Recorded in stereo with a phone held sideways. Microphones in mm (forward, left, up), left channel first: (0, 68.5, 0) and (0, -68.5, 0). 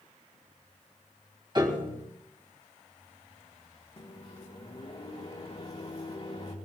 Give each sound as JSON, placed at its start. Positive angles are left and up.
{"t": 1.6, "sound": "a piano", "side_deg": -35, "distance_m": 3.0}
{"t": 4.0, "sound": "a microwave", "side_deg": 45, "distance_m": 3.0}